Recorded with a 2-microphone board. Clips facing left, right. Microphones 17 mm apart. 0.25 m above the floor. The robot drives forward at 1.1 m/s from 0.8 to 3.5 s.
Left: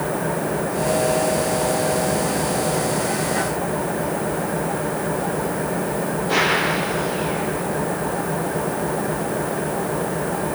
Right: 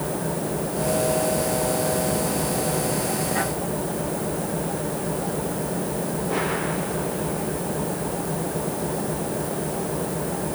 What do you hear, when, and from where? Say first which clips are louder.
0.0 s an engine running: left 4 dB; 75° left (ahead or behind); by 10.6 s 70° left (ahead or behind)